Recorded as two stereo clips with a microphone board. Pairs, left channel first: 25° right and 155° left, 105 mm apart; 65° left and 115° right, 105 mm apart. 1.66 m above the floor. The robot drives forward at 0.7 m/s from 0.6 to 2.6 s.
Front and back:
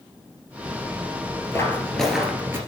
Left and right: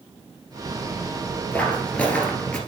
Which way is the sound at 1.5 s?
5° left.